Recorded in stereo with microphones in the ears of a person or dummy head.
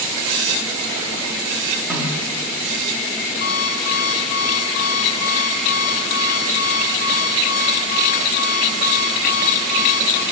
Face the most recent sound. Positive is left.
turn(degrees=50)  # may be behind; listen again after turning